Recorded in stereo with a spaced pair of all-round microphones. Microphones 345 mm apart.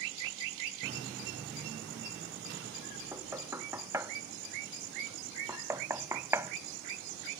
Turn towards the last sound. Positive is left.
turn(degrees=-10)  # may be behind; listen again after turning